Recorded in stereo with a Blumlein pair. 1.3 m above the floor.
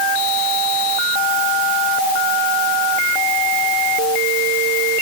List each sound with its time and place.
Only background noise.